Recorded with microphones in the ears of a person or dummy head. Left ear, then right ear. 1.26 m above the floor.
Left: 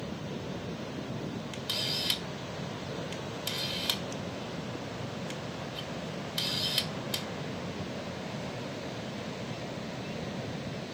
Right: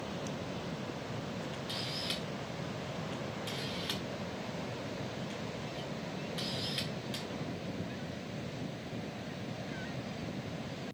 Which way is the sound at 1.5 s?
15° left (ahead or behind).